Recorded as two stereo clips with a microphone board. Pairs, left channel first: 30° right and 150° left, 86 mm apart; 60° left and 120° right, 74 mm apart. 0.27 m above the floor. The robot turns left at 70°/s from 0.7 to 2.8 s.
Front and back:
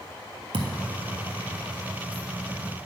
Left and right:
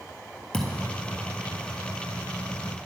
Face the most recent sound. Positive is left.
turn(degrees=-10)